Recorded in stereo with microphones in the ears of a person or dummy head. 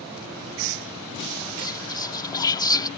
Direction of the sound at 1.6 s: 25° left (ahead or behind).